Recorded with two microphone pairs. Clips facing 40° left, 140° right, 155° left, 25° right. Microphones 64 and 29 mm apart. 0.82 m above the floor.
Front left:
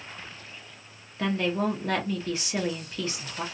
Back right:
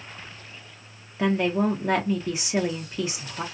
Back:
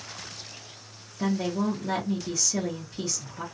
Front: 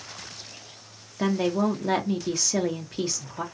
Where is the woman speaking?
65° right, 0.5 m.